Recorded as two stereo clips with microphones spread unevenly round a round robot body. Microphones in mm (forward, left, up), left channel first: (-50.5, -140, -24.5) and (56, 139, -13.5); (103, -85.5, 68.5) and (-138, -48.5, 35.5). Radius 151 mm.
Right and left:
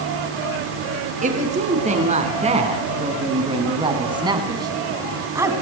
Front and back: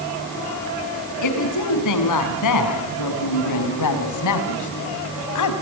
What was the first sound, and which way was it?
A woman speaking, straight ahead.